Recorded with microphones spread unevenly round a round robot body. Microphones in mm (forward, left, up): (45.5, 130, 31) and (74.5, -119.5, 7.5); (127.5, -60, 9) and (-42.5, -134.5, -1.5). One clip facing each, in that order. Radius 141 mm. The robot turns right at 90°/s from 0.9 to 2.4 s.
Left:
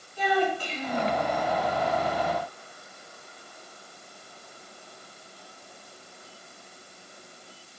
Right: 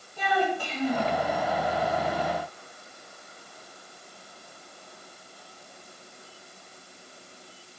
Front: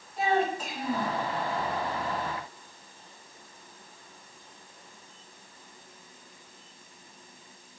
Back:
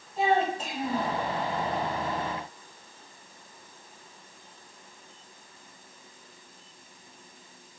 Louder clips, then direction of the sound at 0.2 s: Left 2 dB, back 1 dB; 100° right.